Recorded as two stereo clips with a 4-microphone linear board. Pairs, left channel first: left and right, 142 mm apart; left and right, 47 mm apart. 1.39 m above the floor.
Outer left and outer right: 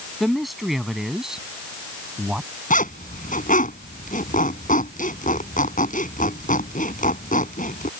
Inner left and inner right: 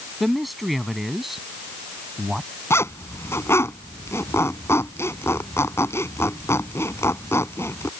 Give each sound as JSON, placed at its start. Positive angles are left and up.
{"t": 0.2, "sound": "a man speaking", "side_deg": 0}
{"t": 2.7, "sound": "a zipper", "side_deg": 70}